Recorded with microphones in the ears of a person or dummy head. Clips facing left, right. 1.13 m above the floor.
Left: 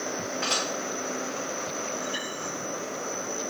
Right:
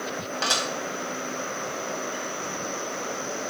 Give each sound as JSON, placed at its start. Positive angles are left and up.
{"t": 0.4, "sound": "dishes clattering", "side_deg": -85, "distance_m": 4.5}